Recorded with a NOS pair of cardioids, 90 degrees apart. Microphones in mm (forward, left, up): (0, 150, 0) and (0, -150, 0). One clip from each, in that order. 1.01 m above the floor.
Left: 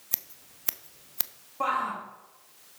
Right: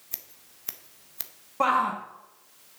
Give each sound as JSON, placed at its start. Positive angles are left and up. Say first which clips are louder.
{"t": 0.1, "sound": "scissors", "louder": "left 5 dB", "azimuth_deg": 20, "distance_m": 0.5}
{"t": 1.6, "sound": "a shout", "louder": "right 5 dB", "azimuth_deg": -50, "distance_m": 1.2}